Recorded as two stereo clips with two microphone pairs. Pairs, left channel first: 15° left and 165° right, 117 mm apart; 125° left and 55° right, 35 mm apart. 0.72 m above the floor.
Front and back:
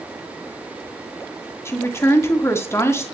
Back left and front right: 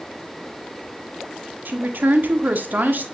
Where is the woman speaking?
50° right, 1.4 m.